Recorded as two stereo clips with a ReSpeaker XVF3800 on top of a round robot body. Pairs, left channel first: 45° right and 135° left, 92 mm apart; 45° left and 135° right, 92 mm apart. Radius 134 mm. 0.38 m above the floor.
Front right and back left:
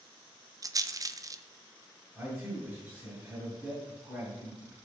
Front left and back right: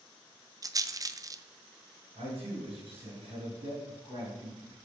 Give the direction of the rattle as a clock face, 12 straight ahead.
6 o'clock.